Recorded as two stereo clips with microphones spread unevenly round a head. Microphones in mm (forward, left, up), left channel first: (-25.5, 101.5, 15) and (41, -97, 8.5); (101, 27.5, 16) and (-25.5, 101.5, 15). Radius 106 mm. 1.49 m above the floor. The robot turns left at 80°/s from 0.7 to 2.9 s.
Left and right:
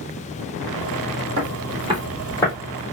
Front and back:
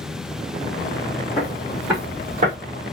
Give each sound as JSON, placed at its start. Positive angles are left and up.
{"t": 1.4, "sound": "footsteps", "azimuth_deg": -90, "distance_m": 2.5}